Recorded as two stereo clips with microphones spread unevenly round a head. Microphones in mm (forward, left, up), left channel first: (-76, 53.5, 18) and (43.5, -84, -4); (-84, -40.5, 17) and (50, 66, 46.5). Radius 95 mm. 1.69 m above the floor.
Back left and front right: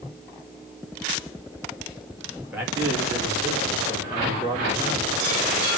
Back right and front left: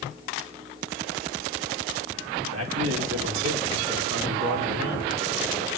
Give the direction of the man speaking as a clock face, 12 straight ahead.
11 o'clock.